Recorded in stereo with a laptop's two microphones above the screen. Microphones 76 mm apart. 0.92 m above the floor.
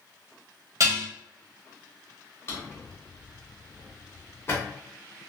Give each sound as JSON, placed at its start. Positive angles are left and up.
{"t": 0.8, "sound": "dishes clattering", "side_deg": -45, "distance_m": 0.8}
{"t": 2.5, "sound": "a drawer", "side_deg": 30, "distance_m": 1.0}